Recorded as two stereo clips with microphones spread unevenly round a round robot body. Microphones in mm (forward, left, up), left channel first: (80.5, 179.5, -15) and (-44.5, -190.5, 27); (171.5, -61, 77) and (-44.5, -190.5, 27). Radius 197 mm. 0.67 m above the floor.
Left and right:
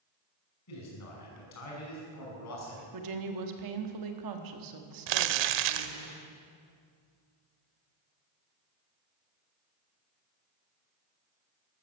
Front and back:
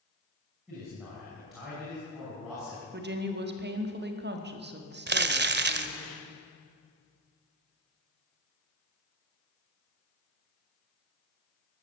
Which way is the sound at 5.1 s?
95° right.